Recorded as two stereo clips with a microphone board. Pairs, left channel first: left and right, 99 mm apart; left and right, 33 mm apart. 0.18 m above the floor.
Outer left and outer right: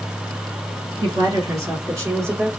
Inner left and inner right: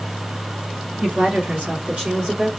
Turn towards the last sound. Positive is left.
turn(degrees=-25)  # may be behind; listen again after turning